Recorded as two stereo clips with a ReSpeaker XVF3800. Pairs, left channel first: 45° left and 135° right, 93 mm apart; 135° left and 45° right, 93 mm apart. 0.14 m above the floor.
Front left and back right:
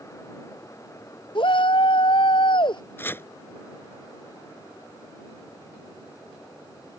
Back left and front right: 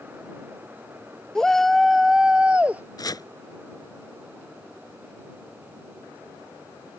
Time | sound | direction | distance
1.4 | a shout | 50° left | ?
3.0 | chopping | 105° left | ?